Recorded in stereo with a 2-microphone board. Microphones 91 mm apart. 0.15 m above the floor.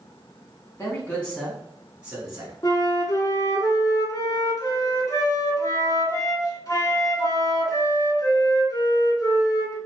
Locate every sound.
0.8 s a man speaking: 25° left (ahead or behind), 1.4 m; by 2.5 s 30° right (ahead or behind), 1.6 m
2.6 s a flute: 40° left (ahead or behind), 0.9 m